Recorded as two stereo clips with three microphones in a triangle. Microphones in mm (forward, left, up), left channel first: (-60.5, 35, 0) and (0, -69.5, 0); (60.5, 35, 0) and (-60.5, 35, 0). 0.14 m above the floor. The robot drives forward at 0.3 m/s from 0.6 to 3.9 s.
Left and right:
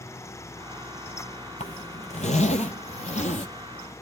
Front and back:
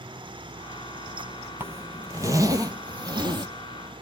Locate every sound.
1.6 s a zipper: 110° left, 1.2 m; by 3.5 s 130° left, 1.5 m